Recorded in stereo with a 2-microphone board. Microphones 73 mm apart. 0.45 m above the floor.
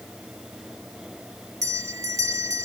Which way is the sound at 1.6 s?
50° right (ahead or behind).